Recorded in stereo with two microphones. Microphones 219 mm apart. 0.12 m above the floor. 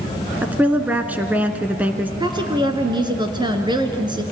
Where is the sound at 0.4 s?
5° right (ahead or behind), 1.1 m.